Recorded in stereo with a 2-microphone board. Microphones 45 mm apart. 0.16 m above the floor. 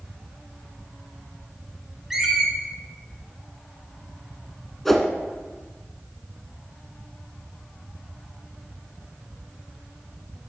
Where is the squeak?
5° right (ahead or behind), 1.4 m.